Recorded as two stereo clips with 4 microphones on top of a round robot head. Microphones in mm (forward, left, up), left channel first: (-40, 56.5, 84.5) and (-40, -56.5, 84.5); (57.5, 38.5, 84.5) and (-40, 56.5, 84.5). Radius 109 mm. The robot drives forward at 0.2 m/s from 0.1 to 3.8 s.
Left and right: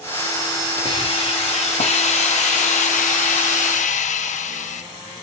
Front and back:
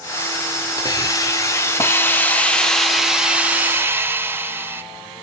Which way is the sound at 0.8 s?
45° left.